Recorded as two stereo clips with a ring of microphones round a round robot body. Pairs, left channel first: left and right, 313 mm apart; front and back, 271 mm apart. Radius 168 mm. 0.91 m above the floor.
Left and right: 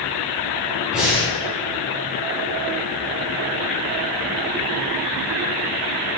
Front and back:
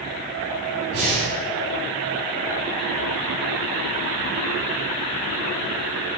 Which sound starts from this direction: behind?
Breathing, at 0.9 s.